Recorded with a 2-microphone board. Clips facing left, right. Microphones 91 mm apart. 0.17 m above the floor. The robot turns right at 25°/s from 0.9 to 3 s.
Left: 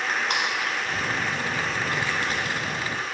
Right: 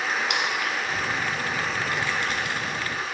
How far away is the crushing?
About 1.2 m.